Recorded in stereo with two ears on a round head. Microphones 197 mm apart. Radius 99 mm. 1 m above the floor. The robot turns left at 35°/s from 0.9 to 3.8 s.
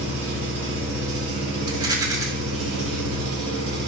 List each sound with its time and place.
0.0 s an engine running: 10° right, 2 m; by 3.9 s 110° right, 2 m
1.7 s a rattle: 20° right (ahead or behind), 0.6 m; by 2.3 s 15° right (ahead or behind), 0.6 m